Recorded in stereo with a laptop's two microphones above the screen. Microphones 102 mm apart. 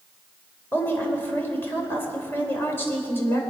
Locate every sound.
0.7 s a woman speaking: 20° left (ahead or behind), 4 m